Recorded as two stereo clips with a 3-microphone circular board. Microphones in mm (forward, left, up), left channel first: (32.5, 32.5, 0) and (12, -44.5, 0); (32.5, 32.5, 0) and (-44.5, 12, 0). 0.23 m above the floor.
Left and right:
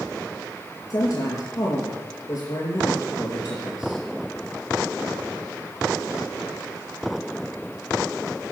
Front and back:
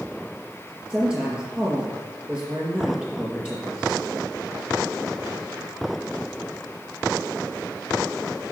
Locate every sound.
0.9 s a woman speaking: 120° left, 4 m